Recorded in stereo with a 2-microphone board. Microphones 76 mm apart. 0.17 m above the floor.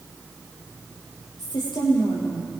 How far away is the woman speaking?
About 6.5 m.